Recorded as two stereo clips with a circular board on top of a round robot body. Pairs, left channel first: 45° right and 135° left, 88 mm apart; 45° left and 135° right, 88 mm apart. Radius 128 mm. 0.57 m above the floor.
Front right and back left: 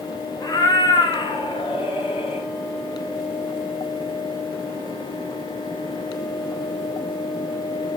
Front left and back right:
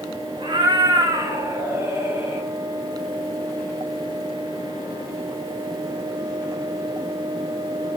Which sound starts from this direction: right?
A cat meowing, at 0.4 s.